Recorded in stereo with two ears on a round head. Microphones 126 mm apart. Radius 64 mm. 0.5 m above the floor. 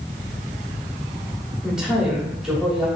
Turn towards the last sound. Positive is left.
turn(degrees=-5)  # may be behind; listen again after turning